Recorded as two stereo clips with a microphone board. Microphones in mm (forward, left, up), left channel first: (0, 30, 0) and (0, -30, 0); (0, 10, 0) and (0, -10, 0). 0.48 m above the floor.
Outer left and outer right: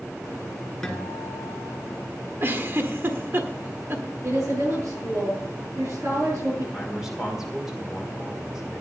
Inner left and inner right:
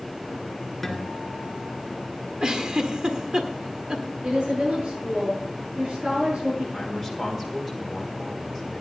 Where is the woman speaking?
55° right (ahead or behind), 7.5 m.